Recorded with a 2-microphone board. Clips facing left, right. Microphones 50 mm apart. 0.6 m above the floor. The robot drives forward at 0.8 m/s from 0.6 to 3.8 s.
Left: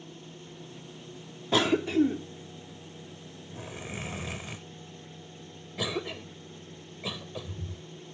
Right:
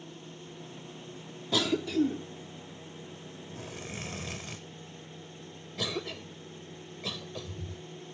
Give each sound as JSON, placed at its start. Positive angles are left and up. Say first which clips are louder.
{"t": 1.5, "sound": "a cough", "louder": "left 4 dB", "side_deg": 40}